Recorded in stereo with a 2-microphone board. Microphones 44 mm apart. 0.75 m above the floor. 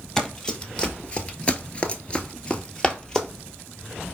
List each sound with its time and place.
0.2 s running footsteps: 20° left (ahead or behind), 1.2 m; by 3.3 s 15° left (ahead or behind), 1.1 m